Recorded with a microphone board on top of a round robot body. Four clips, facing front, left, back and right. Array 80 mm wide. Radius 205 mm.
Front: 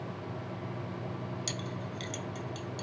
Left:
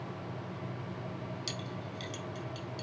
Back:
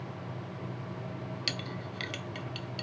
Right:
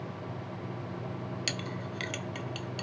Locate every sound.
1.5 s a clink: 115° right, 0.6 m